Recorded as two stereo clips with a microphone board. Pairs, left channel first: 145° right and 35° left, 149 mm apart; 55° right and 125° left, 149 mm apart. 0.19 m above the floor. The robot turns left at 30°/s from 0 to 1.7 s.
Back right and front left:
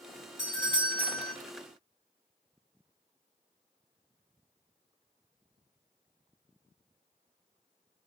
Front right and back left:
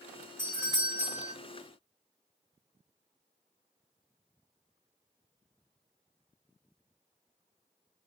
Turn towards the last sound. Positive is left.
turn(degrees=135)